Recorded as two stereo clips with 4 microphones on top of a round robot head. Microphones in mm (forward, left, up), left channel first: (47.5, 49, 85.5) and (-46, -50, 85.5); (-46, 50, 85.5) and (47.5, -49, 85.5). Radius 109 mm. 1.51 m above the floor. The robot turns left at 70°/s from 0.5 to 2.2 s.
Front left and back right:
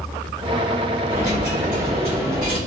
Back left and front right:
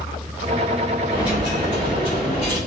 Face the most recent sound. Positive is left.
turn(degrees=170)